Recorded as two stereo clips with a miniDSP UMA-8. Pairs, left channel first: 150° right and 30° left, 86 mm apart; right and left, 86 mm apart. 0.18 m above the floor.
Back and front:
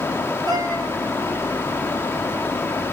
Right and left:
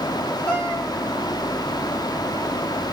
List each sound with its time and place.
0.5 s a cat meowing: 10° right, 2 m